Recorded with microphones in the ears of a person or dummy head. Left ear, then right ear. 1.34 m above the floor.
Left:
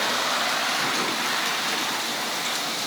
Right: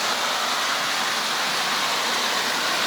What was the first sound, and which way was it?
Only background noise.